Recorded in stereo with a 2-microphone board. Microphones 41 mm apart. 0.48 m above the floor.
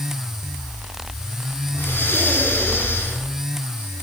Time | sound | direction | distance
1.7 | breathing | 60° left (ahead or behind) | 6.5 m